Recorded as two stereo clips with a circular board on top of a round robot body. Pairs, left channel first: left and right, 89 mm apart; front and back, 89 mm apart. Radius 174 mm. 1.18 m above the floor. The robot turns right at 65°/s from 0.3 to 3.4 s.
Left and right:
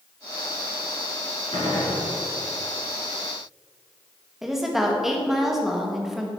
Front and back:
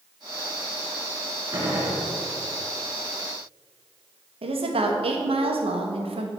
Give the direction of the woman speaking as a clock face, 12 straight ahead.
6 o'clock.